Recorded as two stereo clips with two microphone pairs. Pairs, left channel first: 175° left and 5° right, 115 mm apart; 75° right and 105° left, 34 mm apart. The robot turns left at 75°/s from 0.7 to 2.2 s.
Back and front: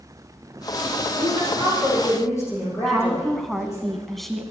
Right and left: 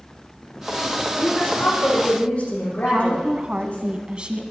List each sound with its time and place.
1.2 s a woman speaking: 45° right, 9.5 m; by 3.9 s 120° right, 9.5 m
2.9 s a woman speaking: 85° left, 1.4 m